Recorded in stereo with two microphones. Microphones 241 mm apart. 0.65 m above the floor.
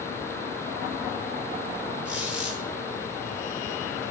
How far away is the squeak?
About 7.5 m.